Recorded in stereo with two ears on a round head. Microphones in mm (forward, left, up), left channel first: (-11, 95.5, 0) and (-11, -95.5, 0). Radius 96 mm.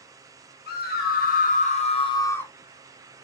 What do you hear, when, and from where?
0.7 s a scream: 50° left (ahead or behind), 1.9 m; by 2.5 s 5° left (ahead or behind), 0.8 m